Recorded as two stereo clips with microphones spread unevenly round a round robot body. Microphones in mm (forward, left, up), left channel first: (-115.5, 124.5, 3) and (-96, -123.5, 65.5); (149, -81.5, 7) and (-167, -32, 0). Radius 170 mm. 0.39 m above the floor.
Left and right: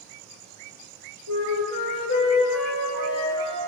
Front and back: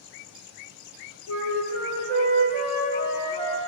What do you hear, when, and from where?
1.3 s a flute: 105° left, 1.5 m